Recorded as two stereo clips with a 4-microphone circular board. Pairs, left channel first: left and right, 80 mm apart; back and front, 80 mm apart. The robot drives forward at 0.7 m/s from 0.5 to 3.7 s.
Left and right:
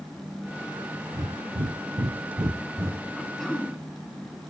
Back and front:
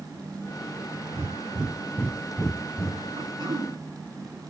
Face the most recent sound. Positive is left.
turn(degrees=5)